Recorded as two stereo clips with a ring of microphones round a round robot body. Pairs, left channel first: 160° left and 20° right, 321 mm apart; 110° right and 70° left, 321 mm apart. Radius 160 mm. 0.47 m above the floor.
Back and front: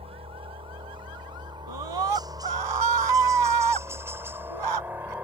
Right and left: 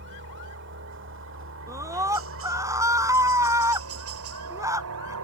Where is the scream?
15° right.